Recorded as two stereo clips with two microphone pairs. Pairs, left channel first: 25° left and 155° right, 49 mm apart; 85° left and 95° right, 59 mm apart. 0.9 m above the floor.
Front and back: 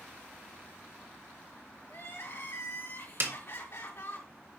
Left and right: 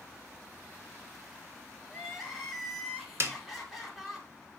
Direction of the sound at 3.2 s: 125° right.